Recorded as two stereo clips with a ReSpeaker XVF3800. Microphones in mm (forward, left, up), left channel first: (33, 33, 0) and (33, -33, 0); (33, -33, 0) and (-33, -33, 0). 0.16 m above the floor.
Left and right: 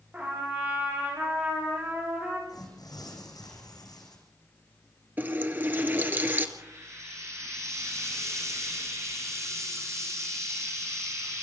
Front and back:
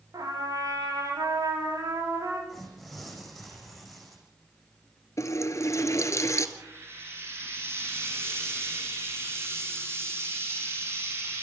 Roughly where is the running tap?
Ahead right.